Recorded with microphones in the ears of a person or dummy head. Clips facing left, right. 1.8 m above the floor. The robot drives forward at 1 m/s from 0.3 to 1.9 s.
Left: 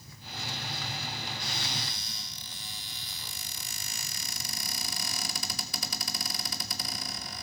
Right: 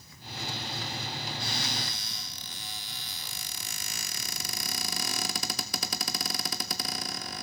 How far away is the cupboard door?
About 0.8 m.